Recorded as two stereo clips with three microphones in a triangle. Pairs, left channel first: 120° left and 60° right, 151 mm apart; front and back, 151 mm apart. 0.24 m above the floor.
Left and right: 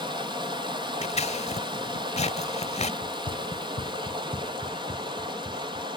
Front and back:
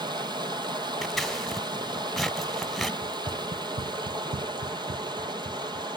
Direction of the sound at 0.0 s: 120° right.